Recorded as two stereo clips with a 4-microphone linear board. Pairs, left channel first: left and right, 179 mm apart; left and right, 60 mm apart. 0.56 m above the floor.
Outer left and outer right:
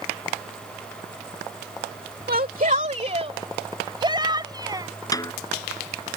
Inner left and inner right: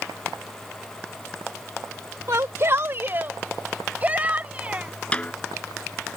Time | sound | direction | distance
2.3 | a shout | 55° right (ahead or behind) | ?
5.1 | a snare drum | 20° left (ahead or behind) | ?